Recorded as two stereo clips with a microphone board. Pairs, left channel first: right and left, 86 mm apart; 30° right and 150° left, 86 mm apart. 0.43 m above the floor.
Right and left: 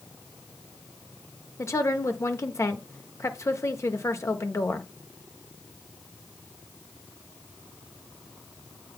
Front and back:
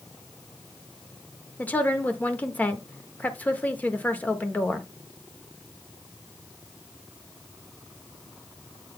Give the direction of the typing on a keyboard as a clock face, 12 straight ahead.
No typing on a keyboard in this recording.